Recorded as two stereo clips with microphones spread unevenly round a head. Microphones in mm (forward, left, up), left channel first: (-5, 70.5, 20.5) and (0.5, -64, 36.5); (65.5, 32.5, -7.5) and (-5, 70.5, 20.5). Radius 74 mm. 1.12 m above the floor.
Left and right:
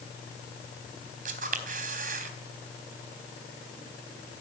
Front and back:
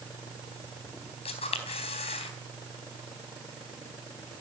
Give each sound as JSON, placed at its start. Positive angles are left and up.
{"t": 1.2, "sound": "a camera shutter", "azimuth_deg": -55, "distance_m": 4.0}